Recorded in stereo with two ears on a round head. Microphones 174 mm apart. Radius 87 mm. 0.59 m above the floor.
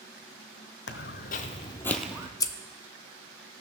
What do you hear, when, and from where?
0.9 s footsteps: 60° left (ahead or behind), 1.1 m; by 2.3 s 15° right (ahead or behind), 0.8 m
2.4 s scissors: 20° left (ahead or behind), 0.6 m